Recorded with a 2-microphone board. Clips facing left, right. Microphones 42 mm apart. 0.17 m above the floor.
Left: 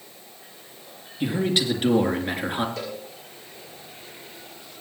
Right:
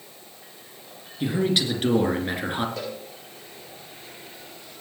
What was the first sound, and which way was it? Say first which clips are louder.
A man speaking: even; 5° left (ahead or behind).